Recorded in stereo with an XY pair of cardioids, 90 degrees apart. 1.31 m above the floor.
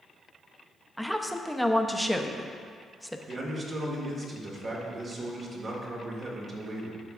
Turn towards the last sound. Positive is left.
turn(degrees=-50)